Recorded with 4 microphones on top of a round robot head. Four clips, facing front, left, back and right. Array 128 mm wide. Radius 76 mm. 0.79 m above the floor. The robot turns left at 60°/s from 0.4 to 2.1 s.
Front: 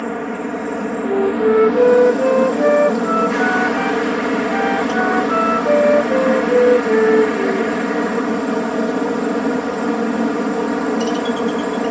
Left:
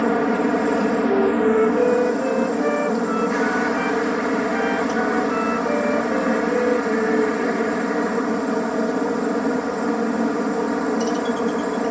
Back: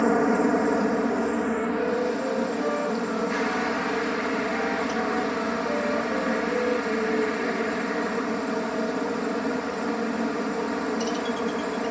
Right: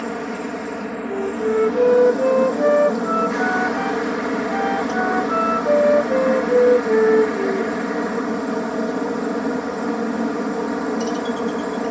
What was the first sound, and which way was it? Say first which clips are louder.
A helicopter: left 7 dB, back 2 dB; 110° left.